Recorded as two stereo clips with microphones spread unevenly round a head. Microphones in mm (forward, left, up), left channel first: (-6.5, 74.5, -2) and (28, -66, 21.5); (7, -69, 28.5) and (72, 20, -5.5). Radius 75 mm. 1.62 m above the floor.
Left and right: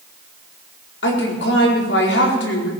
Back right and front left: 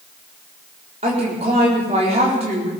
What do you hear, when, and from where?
1.0 s a woman speaking: 105° left, 4 m